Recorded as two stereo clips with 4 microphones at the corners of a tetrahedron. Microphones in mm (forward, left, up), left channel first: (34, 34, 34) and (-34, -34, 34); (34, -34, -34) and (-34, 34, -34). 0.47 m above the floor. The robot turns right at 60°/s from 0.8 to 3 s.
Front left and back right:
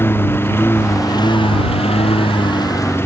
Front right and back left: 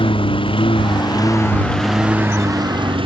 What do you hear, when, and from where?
0.0 s a lawn mower: 20° right; by 3.1 s 110° left